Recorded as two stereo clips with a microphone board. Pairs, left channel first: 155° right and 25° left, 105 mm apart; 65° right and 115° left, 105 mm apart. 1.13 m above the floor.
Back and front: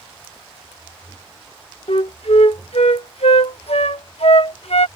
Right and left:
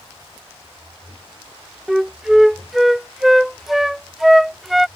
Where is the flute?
160° right.